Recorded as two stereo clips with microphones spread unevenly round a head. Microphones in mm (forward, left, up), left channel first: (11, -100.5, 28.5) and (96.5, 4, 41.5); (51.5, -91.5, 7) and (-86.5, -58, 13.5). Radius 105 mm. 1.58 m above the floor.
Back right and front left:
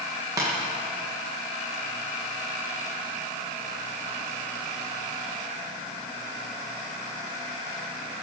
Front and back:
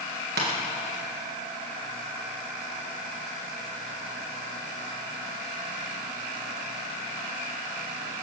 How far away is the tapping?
About 1.9 m.